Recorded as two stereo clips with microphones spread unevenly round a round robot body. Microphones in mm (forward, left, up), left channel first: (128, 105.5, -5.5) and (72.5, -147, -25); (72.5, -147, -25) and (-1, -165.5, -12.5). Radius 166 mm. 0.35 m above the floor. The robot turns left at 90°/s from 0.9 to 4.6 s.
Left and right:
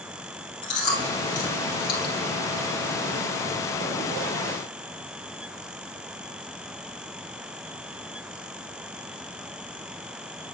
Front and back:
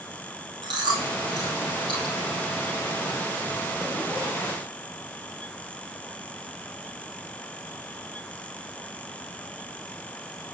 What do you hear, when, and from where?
0.6 s chewing: 150° left, 2 m; by 2.1 s 40° left, 2 m